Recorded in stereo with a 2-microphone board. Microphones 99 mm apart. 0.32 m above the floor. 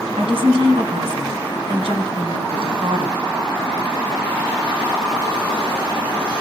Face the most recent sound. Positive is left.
turn(degrees=-65)  # may be behind; listen again after turning